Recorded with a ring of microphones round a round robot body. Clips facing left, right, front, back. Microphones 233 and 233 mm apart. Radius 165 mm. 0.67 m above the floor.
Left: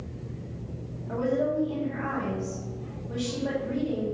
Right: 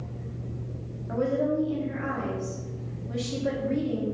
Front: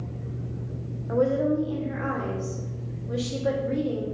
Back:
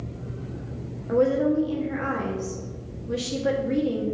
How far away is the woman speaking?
About 1.1 m.